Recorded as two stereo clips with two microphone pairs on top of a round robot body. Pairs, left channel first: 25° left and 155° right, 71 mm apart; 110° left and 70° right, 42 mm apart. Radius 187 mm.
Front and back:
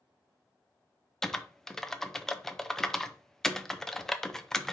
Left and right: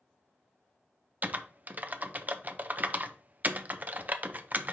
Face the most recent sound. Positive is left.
turn(degrees=-55)